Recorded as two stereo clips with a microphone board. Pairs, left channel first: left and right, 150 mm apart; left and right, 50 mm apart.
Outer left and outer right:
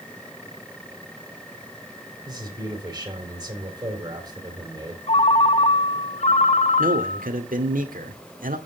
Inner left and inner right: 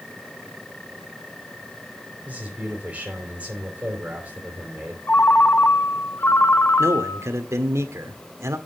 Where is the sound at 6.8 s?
65° right (ahead or behind), 1.5 m.